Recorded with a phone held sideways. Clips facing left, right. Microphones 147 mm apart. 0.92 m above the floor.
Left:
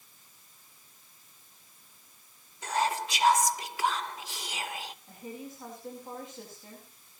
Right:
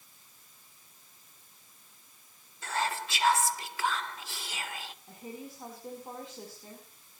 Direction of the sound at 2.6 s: 15° left (ahead or behind).